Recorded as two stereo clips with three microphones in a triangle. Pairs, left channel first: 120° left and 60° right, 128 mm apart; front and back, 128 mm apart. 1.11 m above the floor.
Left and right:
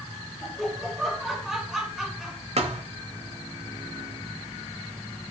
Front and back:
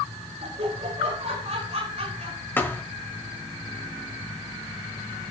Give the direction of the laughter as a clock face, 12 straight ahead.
5 o'clock.